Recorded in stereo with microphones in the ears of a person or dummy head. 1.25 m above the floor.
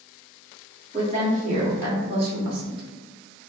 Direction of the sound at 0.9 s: 25° right (ahead or behind).